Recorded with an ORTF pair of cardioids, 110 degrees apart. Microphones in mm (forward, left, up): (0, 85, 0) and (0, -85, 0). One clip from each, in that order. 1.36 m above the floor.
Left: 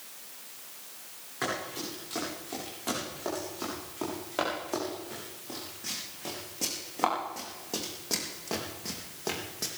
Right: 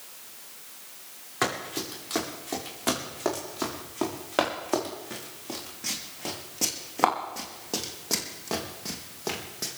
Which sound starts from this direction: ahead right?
Running footsteps, at 1.4 s.